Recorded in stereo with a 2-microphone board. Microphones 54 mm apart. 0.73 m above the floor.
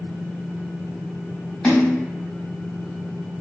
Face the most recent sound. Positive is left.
turn(degrees=15)  # may be behind; listen again after turning